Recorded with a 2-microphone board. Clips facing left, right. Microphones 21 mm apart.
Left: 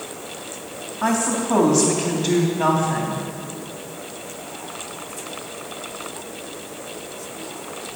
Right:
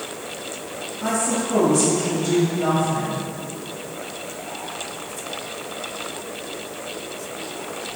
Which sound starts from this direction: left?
A woman speaking, at 1.0 s.